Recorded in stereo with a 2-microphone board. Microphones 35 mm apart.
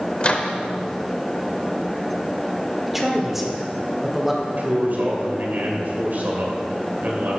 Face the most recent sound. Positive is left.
turn(degrees=-55)  # may be behind; listen again after turning